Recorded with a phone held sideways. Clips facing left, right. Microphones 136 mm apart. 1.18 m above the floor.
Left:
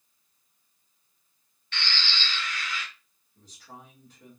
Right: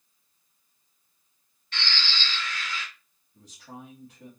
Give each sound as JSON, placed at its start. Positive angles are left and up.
{"t": 1.7, "sound": "a bird", "side_deg": -40, "distance_m": 2.5}
{"t": 3.3, "sound": "a man speaking", "side_deg": -75, "distance_m": 2.0}